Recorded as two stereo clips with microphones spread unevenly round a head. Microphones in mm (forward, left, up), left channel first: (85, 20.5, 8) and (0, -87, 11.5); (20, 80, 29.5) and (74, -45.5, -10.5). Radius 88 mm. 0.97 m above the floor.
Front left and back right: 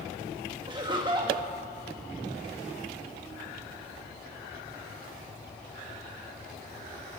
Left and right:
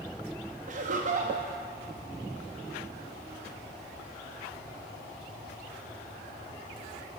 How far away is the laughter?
About 1.5 m.